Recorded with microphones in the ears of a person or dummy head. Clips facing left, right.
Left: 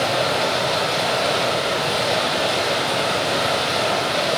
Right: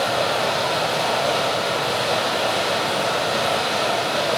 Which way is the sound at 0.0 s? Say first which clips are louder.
Left 1 dB; 25° left (ahead or behind).